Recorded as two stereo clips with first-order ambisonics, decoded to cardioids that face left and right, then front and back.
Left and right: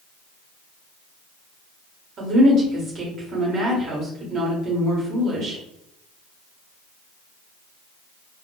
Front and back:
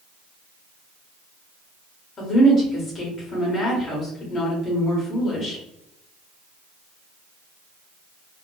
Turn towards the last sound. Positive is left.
turn(degrees=-55)